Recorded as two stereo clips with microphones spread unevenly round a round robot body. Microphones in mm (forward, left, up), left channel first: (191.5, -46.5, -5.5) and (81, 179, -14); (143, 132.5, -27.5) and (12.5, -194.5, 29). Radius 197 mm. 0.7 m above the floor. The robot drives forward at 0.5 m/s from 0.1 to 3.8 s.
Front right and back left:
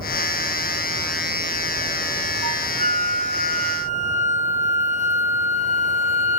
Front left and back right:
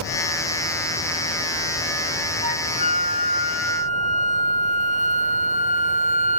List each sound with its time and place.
2.4 s a flute: straight ahead, 3 m